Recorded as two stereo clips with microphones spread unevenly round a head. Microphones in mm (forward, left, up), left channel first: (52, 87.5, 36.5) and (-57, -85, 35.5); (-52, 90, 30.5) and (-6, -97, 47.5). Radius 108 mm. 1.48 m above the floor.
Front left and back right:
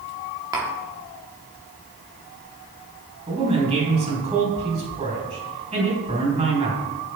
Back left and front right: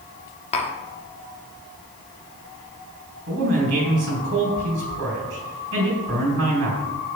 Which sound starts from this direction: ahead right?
A man speaking, at 3.3 s.